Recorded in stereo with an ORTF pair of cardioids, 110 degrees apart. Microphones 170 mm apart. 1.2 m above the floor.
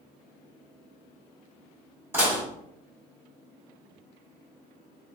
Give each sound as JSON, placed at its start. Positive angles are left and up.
{"t": 2.1, "sound": "dishes clattering", "azimuth_deg": -15, "distance_m": 2.0}